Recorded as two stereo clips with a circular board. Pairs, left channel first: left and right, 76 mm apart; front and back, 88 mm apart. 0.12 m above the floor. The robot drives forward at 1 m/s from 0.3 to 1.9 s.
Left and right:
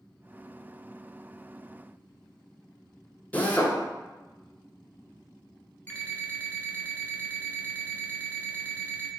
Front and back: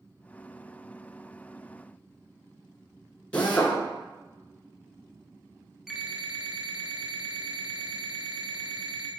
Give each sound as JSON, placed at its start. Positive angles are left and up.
{"t": 3.3, "sound": "a drill", "azimuth_deg": 55, "distance_m": 0.9}
{"t": 5.9, "sound": "an alarm clock", "azimuth_deg": 100, "distance_m": 0.6}